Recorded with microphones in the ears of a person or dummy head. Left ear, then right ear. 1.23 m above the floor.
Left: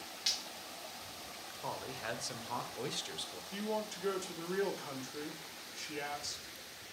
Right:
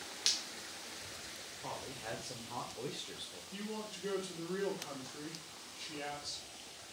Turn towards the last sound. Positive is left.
turn(degrees=60)  # may be behind; listen again after turning